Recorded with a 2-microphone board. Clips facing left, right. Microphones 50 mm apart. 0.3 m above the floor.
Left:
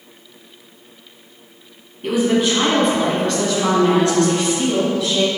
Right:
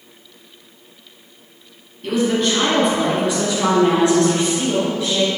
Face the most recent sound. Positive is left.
turn(degrees=-35)  # may be behind; listen again after turning